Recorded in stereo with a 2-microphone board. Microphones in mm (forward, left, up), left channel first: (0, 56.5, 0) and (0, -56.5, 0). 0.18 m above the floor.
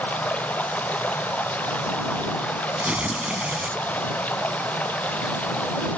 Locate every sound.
0.0 s running water: 10° left (ahead or behind)
2.8 s tearing paper: 10° right (ahead or behind)